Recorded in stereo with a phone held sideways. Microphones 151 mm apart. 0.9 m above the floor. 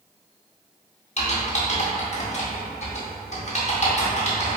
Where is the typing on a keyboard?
50° left (ahead or behind), 0.7 m.